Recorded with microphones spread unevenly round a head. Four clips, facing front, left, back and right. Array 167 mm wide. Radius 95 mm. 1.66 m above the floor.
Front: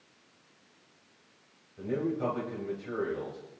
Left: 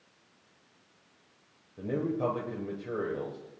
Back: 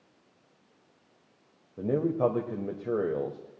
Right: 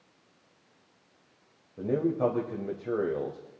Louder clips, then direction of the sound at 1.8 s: Right 4 dB, back 5 dB; 160° right.